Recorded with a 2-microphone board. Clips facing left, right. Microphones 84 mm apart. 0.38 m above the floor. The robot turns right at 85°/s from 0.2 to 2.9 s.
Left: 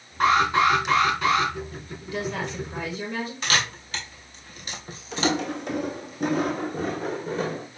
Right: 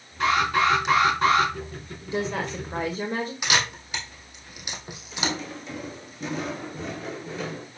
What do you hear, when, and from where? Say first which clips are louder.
0.2 s an alarm: left 2 dB; 130° left, 3 m; by 1.5 s 120° right, 3 m
2.0 s a woman speaking: right 2 dB; 150° right, 1.6 m; by 3.3 s 75° right, 1.6 m
3.4 s a camera shutter: left 2 dB; 15° right (ahead or behind), 2 m
5.1 s footsteps: left 6 dB; 75° left (ahead or behind), 1.1 m; by 7.7 s 35° left (ahead or behind), 1.9 m